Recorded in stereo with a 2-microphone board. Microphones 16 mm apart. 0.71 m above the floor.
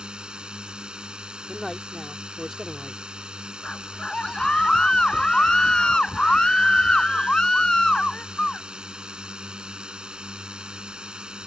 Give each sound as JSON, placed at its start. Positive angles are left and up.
{"t": 0.0, "sound": "a drone", "side_deg": -80}
{"t": 1.5, "sound": "a man speaking", "side_deg": -10}
{"t": 3.6, "sound": "a scream", "side_deg": 50}